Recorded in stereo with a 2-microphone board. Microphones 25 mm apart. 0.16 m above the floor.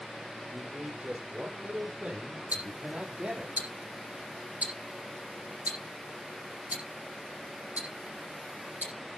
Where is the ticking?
80° right, 8 m.